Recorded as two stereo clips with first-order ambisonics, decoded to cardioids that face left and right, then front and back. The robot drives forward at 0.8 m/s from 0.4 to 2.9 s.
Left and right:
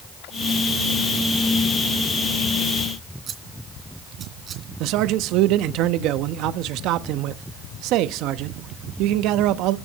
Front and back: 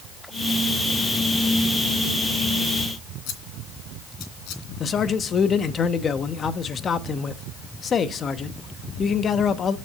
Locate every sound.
3.3 s scissors: 30° right, 2.5 m
4.8 s a man speaking: 65° right, 0.9 m